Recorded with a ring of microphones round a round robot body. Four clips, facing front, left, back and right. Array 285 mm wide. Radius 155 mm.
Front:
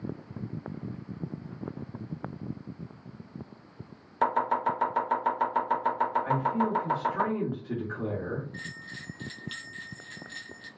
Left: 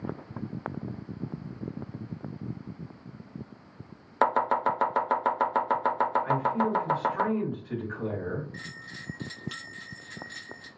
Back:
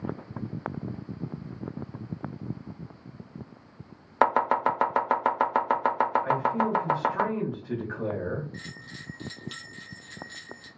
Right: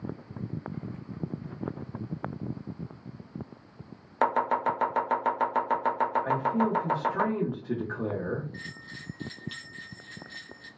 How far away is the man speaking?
About 1.4 m.